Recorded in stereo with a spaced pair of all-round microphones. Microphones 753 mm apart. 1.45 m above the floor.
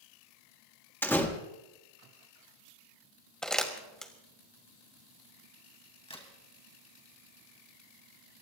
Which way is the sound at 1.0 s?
5° left (ahead or behind).